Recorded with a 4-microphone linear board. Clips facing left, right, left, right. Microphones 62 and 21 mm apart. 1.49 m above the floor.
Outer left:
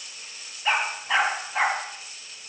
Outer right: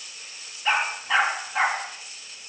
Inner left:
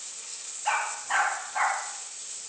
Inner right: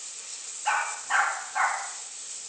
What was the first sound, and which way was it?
A dog barking, 5° left (ahead or behind).